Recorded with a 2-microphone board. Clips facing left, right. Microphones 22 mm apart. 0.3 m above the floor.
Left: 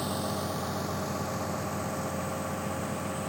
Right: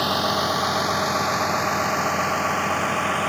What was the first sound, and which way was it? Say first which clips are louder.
A vehicle: right 11 dB; 50° right (ahead or behind).